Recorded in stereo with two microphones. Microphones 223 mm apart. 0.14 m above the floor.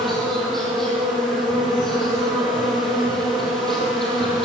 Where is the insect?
Centre (ahead or behind), 4.5 m.